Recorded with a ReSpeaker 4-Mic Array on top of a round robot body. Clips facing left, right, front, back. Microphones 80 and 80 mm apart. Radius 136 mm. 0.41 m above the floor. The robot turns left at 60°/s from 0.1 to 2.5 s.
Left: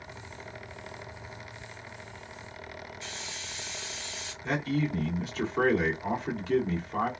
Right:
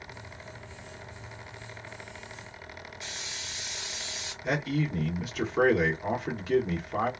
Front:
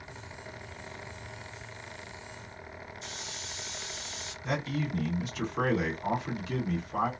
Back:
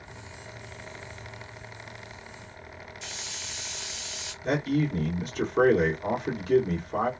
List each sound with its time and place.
3.0 s a hiss: 165° right, 2.0 m
4.4 s a man speaking: 165° right, 1.7 m